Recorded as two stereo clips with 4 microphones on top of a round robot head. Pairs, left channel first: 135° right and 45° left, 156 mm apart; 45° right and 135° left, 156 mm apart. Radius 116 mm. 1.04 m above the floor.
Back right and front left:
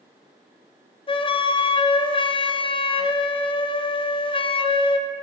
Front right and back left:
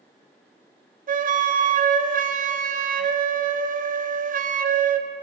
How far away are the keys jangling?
I don't hear keys jangling.